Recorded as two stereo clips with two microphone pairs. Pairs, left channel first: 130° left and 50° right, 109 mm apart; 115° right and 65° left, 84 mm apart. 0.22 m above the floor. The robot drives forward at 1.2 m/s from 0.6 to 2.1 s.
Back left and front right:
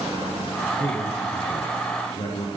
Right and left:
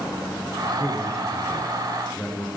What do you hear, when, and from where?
0.8 s a man speaking: 150° left, 2.5 m; by 2.5 s 165° left, 4 m